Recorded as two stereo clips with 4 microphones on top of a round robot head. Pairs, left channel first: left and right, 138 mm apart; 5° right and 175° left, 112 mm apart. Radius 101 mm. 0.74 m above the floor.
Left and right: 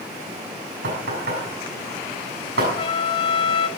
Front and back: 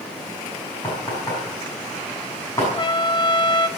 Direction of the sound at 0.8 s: 80° right.